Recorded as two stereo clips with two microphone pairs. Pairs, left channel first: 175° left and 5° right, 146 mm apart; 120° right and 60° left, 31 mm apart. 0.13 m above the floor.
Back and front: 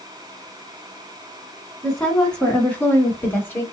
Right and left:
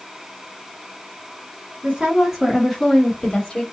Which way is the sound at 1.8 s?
90° left.